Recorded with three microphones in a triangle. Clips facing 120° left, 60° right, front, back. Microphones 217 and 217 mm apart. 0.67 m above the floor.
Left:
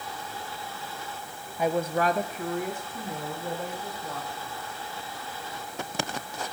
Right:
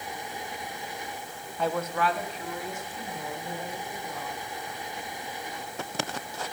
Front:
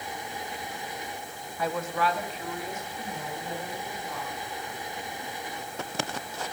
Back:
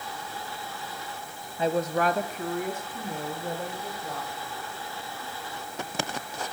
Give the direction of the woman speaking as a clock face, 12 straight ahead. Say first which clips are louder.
Left 3 dB, back 4 dB; 6 o'clock.